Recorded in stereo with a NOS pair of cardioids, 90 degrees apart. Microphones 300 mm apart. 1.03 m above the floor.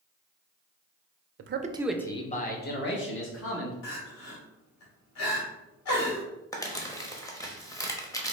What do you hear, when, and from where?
1.4 s a man speaking: 50° right, 0.6 m; by 3.7 s 45° left, 2 m
3.8 s crying: 60° left, 1.8 m
6.5 s crumpling: 10° left, 0.9 m